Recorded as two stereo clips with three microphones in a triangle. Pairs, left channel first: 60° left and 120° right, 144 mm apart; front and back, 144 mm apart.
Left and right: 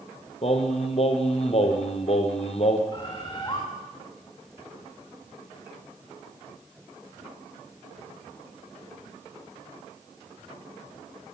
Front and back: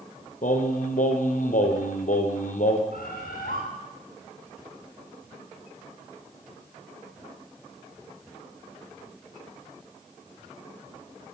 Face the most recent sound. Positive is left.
turn(degrees=0)